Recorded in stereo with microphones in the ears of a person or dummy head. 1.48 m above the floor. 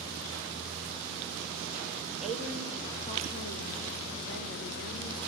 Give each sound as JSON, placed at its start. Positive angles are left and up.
{"t": 2.2, "sound": "a woman speaking", "side_deg": 0, "distance_m": 1.8}